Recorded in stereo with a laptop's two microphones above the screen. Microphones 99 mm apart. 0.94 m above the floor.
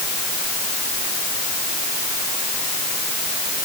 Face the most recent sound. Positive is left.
No sound to turn to.